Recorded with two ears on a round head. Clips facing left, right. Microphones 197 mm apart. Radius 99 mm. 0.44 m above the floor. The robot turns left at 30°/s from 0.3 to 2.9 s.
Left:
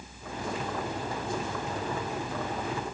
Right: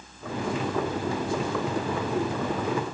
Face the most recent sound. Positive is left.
No sound to turn to.